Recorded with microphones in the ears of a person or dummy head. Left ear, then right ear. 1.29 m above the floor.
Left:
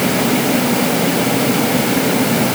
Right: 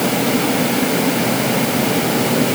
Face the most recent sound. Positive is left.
No sound to turn to.